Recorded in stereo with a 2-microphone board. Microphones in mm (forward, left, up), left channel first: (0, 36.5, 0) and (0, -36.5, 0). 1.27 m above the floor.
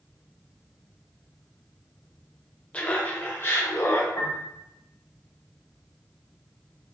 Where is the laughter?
15° left (ahead or behind), 0.9 m; by 4.1 s 40° left (ahead or behind), 1.6 m.